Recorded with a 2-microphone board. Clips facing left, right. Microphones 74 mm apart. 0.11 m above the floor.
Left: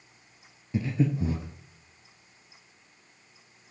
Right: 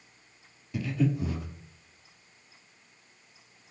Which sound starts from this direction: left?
Breathing, at 0.7 s.